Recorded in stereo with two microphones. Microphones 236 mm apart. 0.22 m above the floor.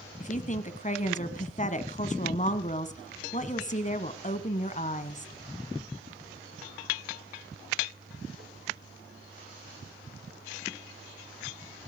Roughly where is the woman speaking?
Left.